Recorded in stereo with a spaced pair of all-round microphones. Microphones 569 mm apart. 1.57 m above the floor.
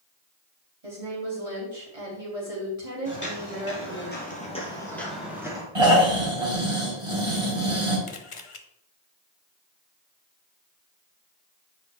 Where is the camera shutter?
60° left (ahead or behind), 0.8 m.